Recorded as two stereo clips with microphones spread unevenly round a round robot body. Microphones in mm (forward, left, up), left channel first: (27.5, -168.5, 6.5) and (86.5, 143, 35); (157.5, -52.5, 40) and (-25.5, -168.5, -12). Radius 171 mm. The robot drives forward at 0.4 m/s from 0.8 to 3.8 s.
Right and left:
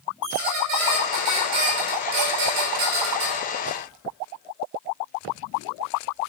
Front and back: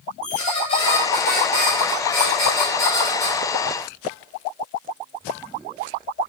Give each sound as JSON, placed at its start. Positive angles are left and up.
{"t": 0.2, "sound": "a squeak", "azimuth_deg": 90, "distance_m": 2.0}